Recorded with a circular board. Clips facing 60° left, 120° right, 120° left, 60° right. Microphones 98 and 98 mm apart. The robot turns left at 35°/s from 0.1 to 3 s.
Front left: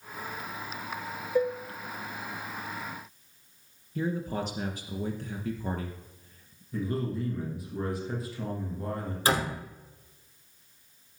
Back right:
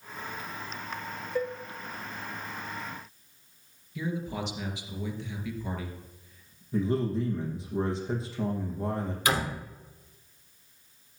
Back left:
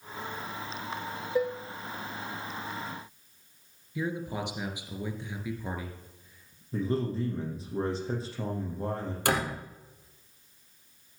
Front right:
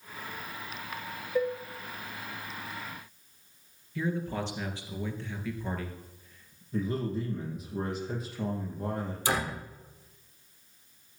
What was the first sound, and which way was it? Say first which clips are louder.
Dishes clattering: front left 5 dB, even; 50° left.